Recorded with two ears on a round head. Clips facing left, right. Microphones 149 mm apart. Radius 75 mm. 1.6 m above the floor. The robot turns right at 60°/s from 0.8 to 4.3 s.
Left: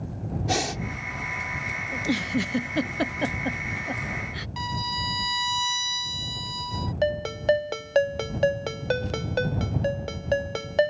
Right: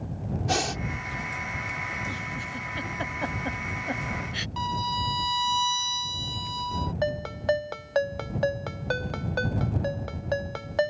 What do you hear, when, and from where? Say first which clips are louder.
0.5 s breathing: left 1 dB; 5° left (ahead or behind)
1.9 s a giggle: left 10 dB; 60° left (ahead or behind); by 4.5 s 30° right (ahead or behind)
4.6 s a violin: right 3 dB; 20° left (ahead or behind)
7.0 s a ringtone: left 4 dB; 30° left (ahead or behind)